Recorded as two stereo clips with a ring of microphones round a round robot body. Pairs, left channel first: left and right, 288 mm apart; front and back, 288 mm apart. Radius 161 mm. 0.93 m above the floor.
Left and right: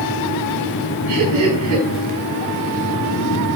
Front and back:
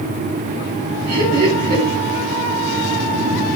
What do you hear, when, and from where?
1.1 s laughter: 120° right, 4.5 m